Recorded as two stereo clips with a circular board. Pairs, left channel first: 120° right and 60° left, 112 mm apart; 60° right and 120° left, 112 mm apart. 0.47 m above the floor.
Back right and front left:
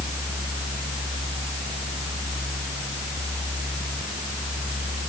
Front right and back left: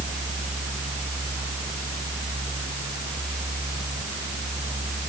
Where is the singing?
I don't hear singing.